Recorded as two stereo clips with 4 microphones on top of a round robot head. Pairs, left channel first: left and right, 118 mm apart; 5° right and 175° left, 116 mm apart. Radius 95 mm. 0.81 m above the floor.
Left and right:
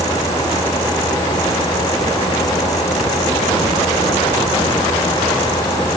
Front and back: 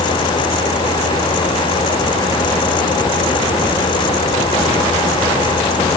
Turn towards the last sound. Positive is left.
No sound to turn to.